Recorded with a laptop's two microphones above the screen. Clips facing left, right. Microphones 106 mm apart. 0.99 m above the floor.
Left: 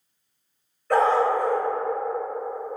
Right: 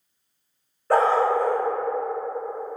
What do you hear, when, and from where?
0.9 s a dog barking: 30° right (ahead or behind), 0.7 m